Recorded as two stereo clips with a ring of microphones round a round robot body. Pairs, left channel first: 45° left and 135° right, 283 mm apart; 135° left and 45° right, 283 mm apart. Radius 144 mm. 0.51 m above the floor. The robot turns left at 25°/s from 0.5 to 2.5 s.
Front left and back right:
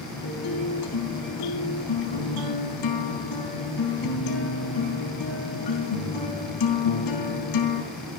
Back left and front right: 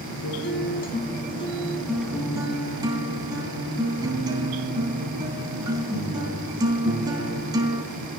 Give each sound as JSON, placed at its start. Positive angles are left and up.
{"t": 0.2, "sound": "a guitar", "azimuth_deg": 80, "distance_m": 3.5}